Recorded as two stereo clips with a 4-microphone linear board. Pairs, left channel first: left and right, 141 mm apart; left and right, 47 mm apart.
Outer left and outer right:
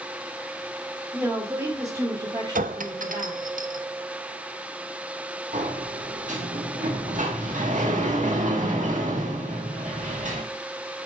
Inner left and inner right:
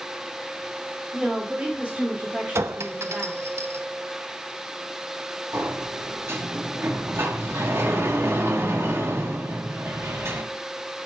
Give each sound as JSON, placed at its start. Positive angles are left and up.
{"t": 1.1, "sound": "a woman speaking", "side_deg": -10, "distance_m": 2.0}
{"t": 2.5, "sound": "a clink", "side_deg": -75, "distance_m": 0.6}
{"t": 5.5, "sound": "a sliding door", "side_deg": -65, "distance_m": 1.7}